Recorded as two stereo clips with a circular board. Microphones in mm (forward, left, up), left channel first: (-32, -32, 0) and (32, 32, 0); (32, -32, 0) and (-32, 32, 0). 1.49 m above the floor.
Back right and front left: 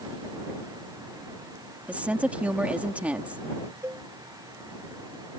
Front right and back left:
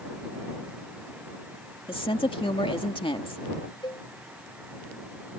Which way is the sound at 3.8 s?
15° right.